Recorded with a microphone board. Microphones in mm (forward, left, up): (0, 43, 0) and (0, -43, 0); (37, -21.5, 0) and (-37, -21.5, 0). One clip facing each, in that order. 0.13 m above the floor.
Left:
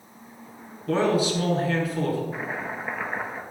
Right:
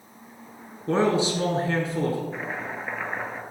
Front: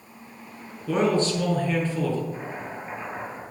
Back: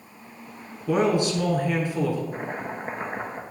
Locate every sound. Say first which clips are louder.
0.9 s a man speaking: even, back 1 dB; 115° right, 1.4 m
2.3 s chopping: left 1 dB, back 3 dB; 175° left, 1.1 m